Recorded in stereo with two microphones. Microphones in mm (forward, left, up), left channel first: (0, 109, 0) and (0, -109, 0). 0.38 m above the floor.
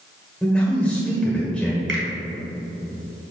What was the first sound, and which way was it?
A man speaking, 5° left (ahead or behind).